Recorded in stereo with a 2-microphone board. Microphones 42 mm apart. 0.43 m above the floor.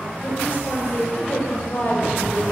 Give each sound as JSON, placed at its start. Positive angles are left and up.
{"t": 0.2, "sound": "a woman speaking", "side_deg": 55, "distance_m": 3.0}